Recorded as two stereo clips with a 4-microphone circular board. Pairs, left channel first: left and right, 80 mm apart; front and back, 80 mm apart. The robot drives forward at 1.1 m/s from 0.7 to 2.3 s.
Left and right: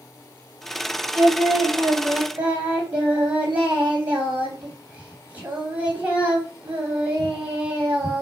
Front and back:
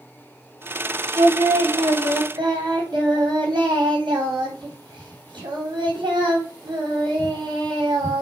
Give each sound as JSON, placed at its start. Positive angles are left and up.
{"t": 1.1, "sound": "singing", "azimuth_deg": -145, "distance_m": 2.5}